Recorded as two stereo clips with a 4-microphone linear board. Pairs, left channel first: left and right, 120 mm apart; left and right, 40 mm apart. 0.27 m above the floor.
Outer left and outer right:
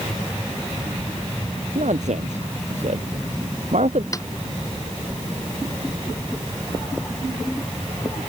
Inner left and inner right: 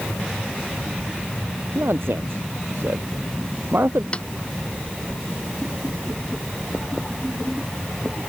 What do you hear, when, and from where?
1.8 s a man speaking: 75° right (ahead or behind)
4.1 s a snare drum: 30° left (ahead or behind)